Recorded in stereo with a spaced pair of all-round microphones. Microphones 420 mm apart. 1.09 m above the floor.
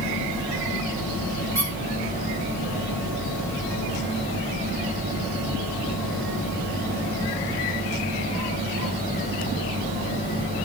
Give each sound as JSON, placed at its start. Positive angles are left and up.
{"t": 1.6, "sound": "a squeak", "side_deg": -40, "distance_m": 2.5}